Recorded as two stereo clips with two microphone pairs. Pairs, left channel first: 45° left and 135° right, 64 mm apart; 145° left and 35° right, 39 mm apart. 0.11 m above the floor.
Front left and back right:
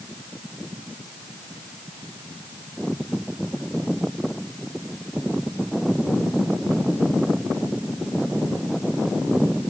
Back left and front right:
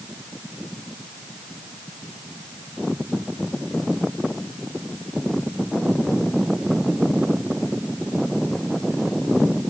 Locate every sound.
Only background noise.